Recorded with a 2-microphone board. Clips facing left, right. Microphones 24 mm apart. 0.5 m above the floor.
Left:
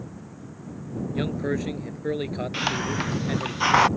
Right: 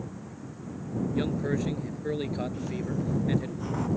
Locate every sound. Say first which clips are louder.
1.1 s a man speaking: left 3 dB; 20° left (ahead or behind)
2.5 s a hiss: left 6 dB; 70° left (ahead or behind)